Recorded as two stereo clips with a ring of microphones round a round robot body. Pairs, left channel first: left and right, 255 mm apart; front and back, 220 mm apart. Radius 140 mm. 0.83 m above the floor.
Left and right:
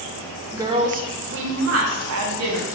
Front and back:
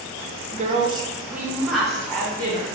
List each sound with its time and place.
0.5 s a woman speaking: 165° right, 0.5 m; by 2.8 s 80° right, 1.3 m